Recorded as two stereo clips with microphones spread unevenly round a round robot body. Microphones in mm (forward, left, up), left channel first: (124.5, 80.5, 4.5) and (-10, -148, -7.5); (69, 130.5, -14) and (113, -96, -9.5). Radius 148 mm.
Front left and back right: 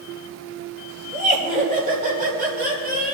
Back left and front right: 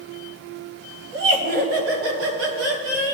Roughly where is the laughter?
Ahead right.